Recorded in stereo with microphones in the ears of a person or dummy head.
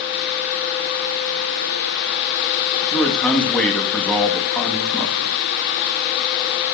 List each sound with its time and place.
2.8 s a man speaking: 10° left (ahead or behind), 2.5 m